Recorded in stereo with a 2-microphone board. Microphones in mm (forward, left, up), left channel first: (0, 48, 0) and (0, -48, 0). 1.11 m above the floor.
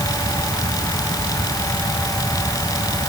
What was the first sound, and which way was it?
Only background noise.